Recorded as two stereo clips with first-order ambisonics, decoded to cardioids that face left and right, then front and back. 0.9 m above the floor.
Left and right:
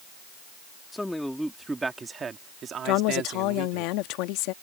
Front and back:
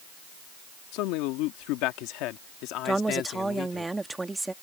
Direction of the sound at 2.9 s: 100° left.